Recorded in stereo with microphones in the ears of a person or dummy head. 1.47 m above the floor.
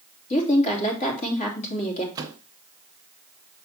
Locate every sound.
0.3 s a woman speaking: 40° left (ahead or behind), 3 m
2.1 s a microwave: 15° right (ahead or behind), 0.7 m